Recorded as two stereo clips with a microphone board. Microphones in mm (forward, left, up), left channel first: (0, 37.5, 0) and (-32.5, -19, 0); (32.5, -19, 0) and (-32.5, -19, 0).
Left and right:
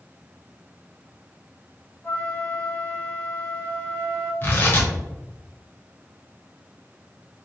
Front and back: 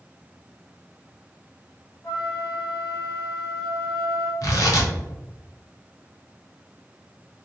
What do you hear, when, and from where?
2.0 s a flute: 5° left, 1.2 m
4.4 s tearing paper: 5° left, 1.0 m